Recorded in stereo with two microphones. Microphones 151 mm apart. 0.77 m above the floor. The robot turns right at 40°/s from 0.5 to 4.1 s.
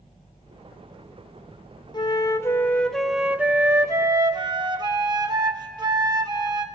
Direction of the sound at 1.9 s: 135° left.